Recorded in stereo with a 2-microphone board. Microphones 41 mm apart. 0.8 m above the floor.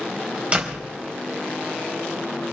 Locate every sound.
0.5 s a door slam: 30° right (ahead or behind), 3.5 m